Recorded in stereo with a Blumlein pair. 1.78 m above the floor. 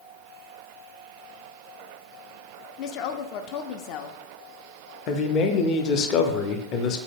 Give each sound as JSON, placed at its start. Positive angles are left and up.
{"t": 2.8, "sound": "a woman speaking", "azimuth_deg": 40, "distance_m": 0.5}
{"t": 5.1, "sound": "a man speaking", "azimuth_deg": 35, "distance_m": 0.7}